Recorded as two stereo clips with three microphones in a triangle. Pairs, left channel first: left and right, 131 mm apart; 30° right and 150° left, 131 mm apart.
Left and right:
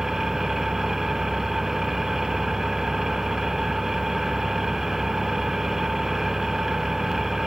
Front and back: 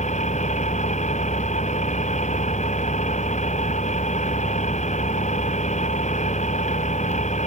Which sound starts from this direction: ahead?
An engine running, at 0.0 s.